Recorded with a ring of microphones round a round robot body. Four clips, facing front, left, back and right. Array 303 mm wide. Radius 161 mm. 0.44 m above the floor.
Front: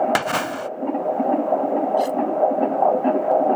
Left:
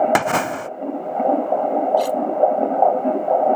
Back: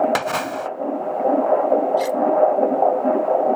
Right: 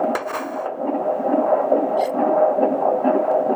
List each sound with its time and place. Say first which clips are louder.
0.1 s a splash: left 5 dB, even; 80° left
2.0 s cutlery clinking: left 1 dB, even; 120° left